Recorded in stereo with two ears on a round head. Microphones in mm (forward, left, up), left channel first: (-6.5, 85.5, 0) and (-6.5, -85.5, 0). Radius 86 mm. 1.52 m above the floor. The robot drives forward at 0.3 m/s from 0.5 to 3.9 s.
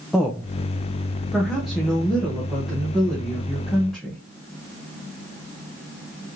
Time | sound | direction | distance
0.1 | a woman speaking | centre (ahead or behind) | 0.6 m